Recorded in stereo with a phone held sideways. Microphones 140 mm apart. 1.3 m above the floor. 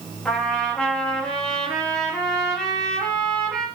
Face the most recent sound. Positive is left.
turn(degrees=5)  # may be behind; listen again after turning